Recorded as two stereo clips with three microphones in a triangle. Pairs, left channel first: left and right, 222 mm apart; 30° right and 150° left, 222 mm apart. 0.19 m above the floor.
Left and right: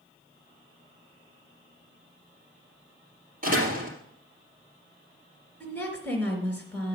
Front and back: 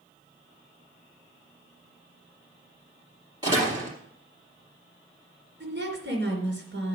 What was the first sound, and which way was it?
A door slam, 140° right.